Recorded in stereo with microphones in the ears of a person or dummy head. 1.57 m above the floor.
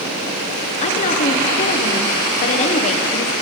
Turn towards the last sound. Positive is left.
turn(degrees=40)  # may be behind; listen again after turning